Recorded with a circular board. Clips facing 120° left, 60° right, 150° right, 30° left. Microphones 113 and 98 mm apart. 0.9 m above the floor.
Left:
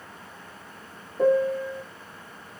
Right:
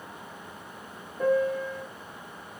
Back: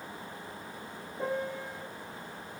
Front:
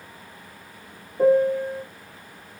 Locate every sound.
1.2 s a piano: 70° left, 0.8 m